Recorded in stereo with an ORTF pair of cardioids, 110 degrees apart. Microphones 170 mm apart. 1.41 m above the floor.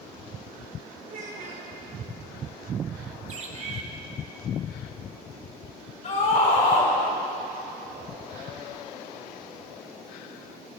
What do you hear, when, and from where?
1.1 s a child speaking: 50° right, 3.5 m
3.3 s a bird: 45° right, 1.5 m
6.0 s a scream: 40° left, 4.5 m